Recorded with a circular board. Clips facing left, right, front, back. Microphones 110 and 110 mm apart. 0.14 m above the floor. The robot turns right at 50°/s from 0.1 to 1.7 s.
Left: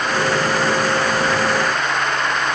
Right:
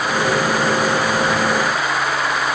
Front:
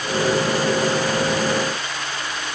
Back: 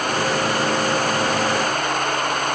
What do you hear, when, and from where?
Only background noise.